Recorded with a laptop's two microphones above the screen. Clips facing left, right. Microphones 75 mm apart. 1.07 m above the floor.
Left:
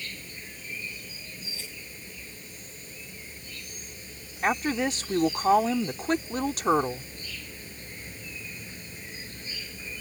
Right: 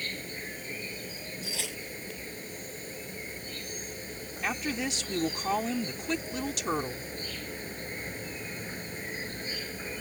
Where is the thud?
I don't hear a thud.